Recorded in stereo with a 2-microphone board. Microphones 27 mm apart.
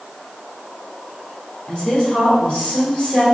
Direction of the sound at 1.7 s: 40° left (ahead or behind).